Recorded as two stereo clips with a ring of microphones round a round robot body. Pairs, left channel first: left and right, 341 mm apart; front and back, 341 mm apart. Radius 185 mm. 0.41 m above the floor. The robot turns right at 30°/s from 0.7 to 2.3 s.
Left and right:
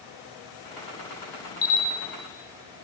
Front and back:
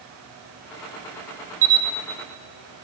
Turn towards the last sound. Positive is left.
turn(degrees=150)